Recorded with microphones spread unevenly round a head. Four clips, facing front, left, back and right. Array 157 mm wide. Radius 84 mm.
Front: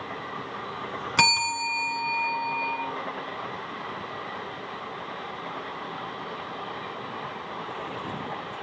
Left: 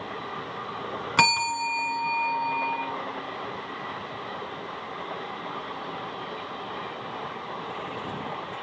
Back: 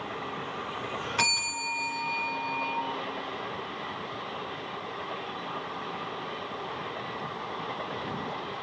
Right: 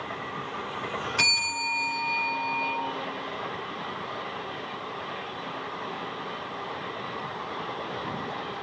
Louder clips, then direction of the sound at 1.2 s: Left 8 dB, front 11 dB; 40° left.